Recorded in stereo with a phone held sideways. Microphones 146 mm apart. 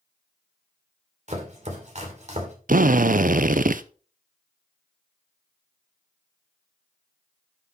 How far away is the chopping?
About 2.5 m.